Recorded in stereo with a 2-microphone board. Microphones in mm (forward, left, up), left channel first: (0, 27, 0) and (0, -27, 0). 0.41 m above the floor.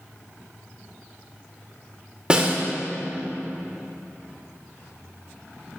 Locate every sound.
2.3 s a snare drum: 20° right (ahead or behind), 1.4 m